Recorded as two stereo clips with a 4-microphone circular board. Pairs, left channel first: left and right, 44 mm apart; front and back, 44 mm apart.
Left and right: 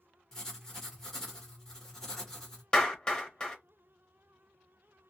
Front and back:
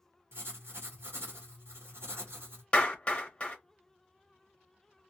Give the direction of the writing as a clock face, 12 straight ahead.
6 o'clock.